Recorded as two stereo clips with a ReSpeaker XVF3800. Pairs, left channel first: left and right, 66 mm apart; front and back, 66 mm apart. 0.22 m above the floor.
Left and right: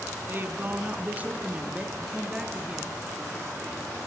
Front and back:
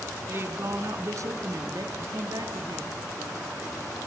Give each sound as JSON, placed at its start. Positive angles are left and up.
{"t": 0.3, "sound": "a woman speaking", "azimuth_deg": -135, "distance_m": 2.0}